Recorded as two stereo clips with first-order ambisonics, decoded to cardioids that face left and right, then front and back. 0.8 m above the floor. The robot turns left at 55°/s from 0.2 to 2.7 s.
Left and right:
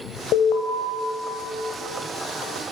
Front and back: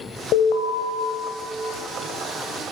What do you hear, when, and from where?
0.3 s an alarm: 45° left, 2.5 m; by 0.7 s 25° left, 2.5 m